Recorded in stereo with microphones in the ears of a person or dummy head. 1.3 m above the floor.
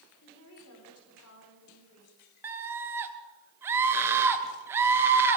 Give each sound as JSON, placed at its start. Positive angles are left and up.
{"t": 0.2, "sound": "a woman speaking", "side_deg": 65, "distance_m": 4.5}
{"t": 2.4, "sound": "a scream", "side_deg": -10, "distance_m": 1.7}